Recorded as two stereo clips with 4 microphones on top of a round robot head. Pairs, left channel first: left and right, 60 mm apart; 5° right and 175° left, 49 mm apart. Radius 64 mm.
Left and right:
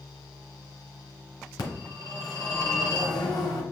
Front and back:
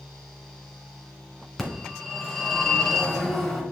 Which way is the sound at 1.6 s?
80° left.